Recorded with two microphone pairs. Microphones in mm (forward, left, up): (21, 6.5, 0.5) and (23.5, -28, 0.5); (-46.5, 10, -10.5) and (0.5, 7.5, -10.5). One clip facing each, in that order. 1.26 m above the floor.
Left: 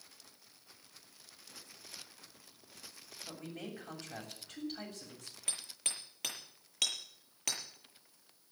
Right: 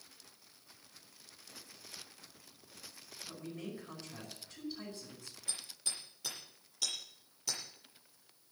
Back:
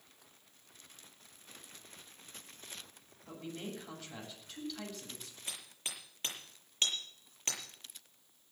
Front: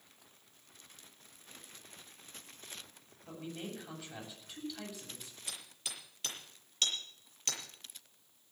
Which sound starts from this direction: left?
A man speaking, at 3.3 s.